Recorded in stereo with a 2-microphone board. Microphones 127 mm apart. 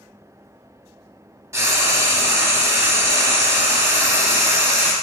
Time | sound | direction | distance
1.5 | frying | 25° right (ahead or behind) | 0.6 m